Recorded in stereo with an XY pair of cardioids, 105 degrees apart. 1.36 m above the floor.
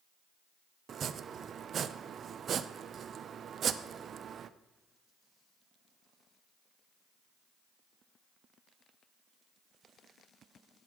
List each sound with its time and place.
0.9 s chopping: 50° right, 0.7 m